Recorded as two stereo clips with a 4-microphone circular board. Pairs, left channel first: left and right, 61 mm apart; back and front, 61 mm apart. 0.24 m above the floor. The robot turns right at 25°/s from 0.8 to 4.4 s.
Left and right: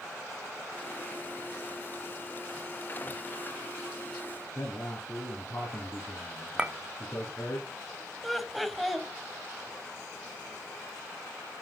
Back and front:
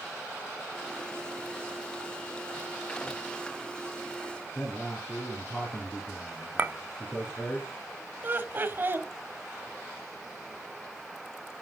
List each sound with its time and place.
4.5 s a man speaking: 125° left, 3 m
6.6 s a clink: 35° right, 0.6 m
8.2 s laughter: straight ahead, 1.3 m